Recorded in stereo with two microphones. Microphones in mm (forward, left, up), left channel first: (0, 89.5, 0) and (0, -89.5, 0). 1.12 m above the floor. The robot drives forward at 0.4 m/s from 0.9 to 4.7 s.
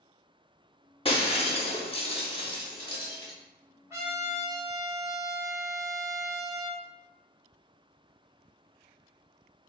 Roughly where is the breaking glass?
Left.